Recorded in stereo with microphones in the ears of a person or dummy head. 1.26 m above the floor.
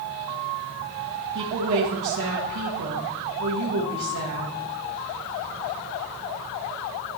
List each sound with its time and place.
1.4 s a woman speaking: 65° right (ahead or behind), 1.4 m